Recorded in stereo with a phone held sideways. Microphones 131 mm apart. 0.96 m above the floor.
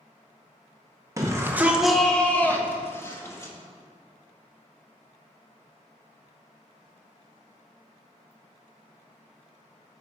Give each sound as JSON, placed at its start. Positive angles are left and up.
{"t": 1.2, "sound": "a shout", "side_deg": -25, "distance_m": 0.9}